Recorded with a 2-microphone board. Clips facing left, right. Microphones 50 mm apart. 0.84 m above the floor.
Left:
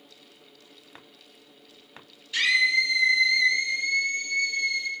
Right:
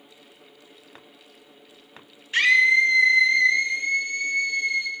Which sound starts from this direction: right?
A scream, at 2.3 s.